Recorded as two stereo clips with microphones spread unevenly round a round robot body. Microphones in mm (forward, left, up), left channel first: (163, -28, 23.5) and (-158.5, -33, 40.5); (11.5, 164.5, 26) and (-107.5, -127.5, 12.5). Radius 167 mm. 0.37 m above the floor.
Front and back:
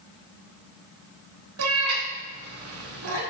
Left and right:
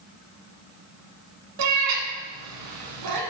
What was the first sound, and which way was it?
A cat meowing, 135° right.